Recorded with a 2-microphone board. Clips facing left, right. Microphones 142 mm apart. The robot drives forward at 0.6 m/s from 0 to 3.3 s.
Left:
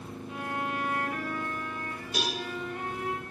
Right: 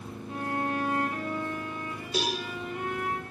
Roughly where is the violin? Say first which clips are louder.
Right 4 dB; right.